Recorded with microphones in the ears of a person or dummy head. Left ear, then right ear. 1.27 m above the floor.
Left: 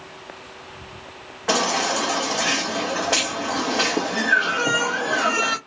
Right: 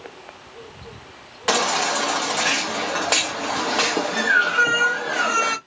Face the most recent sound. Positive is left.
turn(degrees=-20)  # may be behind; listen again after turning